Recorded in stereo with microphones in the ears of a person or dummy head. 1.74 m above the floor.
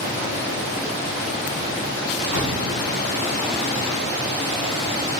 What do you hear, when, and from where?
2.3 s an explosion: 70° left (ahead or behind), 3 m